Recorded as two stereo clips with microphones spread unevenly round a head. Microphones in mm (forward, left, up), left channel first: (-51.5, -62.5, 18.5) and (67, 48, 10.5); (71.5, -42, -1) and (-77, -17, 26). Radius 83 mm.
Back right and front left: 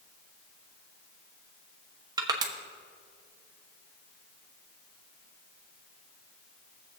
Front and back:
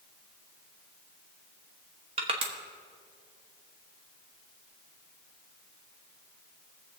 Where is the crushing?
110° left, 1.0 m.